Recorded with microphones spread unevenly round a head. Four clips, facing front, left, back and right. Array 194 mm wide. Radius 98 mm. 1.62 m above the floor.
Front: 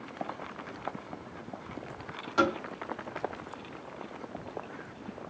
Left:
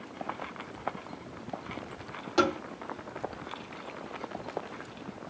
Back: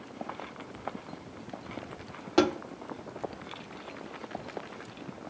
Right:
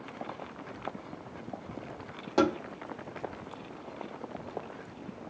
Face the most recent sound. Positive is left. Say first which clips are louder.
# right 1 dB, back 2 dB
turn(degrees=-145)